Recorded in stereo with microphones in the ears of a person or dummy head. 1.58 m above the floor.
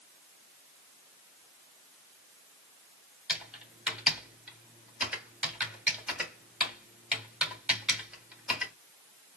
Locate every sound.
3.3 s typing on a keyboard: 5° right (ahead or behind), 1.7 m